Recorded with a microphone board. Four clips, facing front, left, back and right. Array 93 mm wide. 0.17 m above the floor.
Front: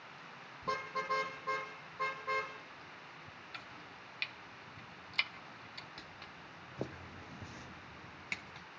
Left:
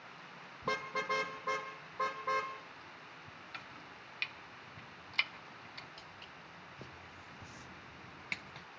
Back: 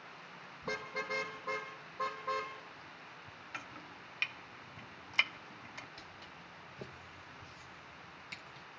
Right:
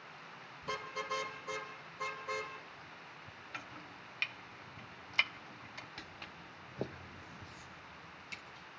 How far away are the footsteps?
About 1.5 m.